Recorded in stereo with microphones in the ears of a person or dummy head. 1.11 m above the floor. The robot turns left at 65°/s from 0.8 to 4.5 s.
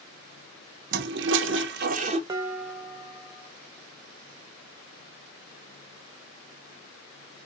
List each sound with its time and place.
0.9 s a toilet flushing: 65° right, 0.5 m; by 2.2 s 145° right, 0.5 m
2.3 s dishes clattering: 155° right, 0.6 m; by 3.5 s 125° left, 0.6 m